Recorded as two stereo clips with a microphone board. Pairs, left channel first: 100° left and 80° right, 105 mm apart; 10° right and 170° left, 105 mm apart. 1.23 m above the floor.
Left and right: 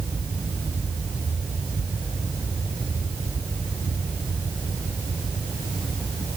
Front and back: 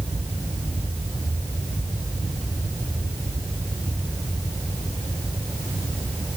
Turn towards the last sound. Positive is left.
No sound to turn to.